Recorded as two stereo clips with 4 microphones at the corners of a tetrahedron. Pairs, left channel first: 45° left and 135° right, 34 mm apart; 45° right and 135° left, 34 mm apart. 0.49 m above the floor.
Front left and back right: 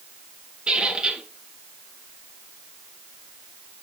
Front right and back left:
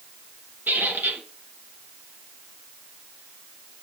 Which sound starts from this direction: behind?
A squeak, at 0.7 s.